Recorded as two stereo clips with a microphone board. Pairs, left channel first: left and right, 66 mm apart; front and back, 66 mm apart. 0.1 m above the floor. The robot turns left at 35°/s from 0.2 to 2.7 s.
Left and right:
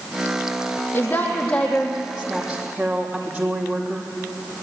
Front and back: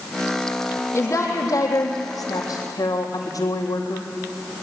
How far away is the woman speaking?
About 3.5 m.